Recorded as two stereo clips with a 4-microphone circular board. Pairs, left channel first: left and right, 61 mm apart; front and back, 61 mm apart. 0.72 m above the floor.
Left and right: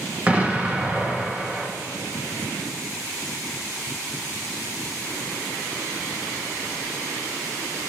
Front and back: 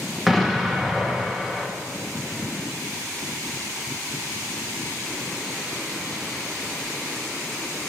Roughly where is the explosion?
Right.